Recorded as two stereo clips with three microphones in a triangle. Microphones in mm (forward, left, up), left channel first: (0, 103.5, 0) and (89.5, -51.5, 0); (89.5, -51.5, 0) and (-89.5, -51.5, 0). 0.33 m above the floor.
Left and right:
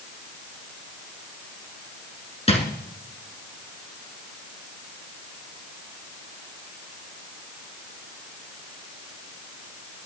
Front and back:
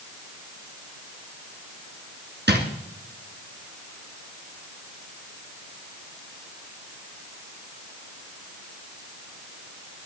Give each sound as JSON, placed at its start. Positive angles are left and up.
{"t": 2.5, "sound": "a drawer", "azimuth_deg": 175, "distance_m": 2.5}